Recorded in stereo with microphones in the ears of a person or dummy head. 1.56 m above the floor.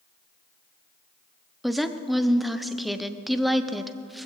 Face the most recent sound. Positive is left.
turn(degrees=0)  # may be behind; listen again after turning